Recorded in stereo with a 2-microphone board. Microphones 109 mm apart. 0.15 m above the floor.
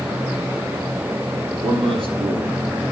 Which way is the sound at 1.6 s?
60° right (ahead or behind).